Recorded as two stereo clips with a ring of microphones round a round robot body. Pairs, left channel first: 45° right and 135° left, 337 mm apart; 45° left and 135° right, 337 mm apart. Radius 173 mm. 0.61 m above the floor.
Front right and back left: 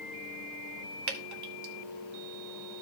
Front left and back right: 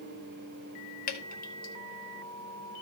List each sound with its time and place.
1.1 s dripping: 105° left, 1.6 m